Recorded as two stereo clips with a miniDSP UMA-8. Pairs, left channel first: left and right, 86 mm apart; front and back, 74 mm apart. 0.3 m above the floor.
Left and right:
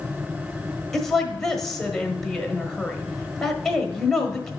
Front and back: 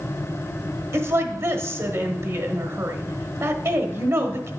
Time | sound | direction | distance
0.9 | a woman speaking | 170° left | 1.1 m